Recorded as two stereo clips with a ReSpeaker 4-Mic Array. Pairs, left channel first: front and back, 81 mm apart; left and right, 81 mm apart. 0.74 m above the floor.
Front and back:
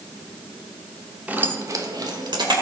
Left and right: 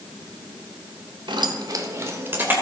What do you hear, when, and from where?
1.3 s keys jangling: 110° right, 1.0 m; by 2.5 s 160° right, 1.9 m